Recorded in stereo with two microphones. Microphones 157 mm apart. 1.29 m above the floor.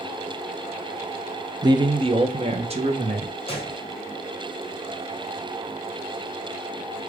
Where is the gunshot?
35° left (ahead or behind), 1.3 m.